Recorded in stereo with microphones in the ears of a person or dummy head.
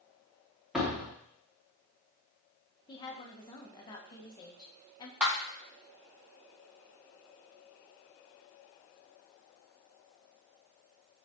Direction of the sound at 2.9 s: 20° left (ahead or behind).